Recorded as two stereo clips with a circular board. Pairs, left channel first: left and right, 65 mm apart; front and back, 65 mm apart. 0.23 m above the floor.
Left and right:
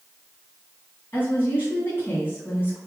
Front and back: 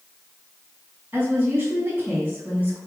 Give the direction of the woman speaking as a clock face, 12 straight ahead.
8 o'clock.